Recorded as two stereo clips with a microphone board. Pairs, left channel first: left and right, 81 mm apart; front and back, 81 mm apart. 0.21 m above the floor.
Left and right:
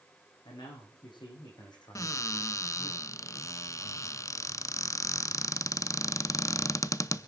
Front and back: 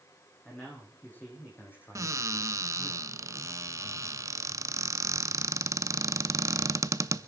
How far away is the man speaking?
About 9.5 m.